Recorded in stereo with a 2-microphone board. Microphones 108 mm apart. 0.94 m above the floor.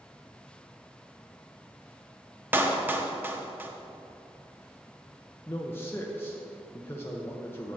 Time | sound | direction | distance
2.5 | a clap | 20° right (ahead or behind) | 0.9 m
5.5 | a man speaking | 20° left (ahead or behind) | 0.8 m